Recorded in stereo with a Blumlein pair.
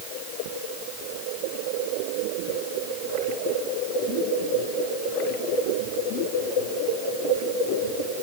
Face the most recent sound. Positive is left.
No sound to turn to.